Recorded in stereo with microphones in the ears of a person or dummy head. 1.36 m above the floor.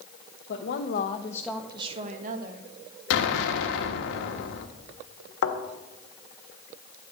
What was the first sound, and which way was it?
A woman speaking, 70° left (ahead or behind).